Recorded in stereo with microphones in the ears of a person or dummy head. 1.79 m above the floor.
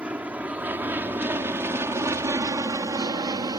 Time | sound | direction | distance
0.0 | an aircraft | 5° right (ahead or behind) | ?